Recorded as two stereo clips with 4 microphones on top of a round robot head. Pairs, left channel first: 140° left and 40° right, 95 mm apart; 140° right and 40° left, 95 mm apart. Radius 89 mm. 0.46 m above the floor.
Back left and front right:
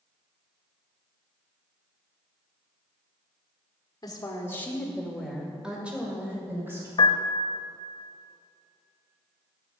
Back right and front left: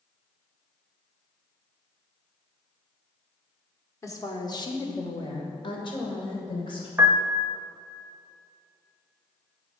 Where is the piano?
110° left, 0.6 m.